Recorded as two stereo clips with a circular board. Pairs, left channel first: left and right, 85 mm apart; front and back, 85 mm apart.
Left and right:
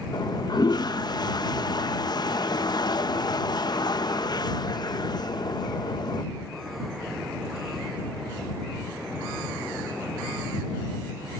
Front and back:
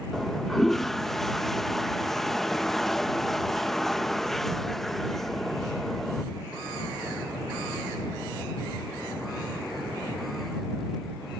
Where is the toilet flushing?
85° left.